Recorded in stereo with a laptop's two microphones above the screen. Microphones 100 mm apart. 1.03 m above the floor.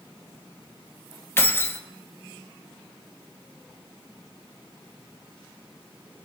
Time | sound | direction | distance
1.4 | keys jangling | 25° left (ahead or behind) | 0.7 m